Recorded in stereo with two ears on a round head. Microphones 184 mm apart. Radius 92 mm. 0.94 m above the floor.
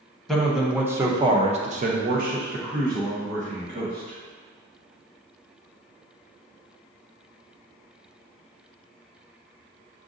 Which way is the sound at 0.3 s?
5° left (ahead or behind).